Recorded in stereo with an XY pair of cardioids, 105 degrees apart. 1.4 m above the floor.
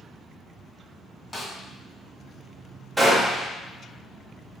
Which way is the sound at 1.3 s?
25° left.